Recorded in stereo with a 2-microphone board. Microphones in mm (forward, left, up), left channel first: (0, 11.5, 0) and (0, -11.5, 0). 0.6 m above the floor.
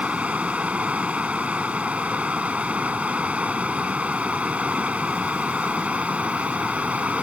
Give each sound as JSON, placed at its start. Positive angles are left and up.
{"t": 0.0, "sound": "running water", "side_deg": -80}